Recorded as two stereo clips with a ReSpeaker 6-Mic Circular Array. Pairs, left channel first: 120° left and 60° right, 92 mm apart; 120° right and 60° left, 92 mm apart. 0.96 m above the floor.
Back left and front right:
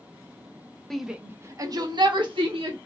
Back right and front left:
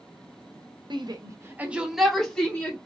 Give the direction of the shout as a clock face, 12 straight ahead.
11 o'clock.